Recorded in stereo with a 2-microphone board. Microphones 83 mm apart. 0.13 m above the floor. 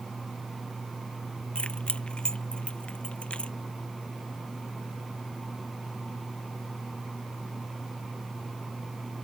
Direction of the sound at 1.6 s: 15° left (ahead or behind).